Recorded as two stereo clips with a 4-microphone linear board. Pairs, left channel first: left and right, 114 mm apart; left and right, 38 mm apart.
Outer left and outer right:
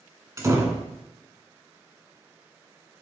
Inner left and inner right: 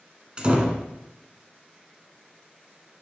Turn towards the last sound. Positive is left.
turn(degrees=-25)  # may be behind; listen again after turning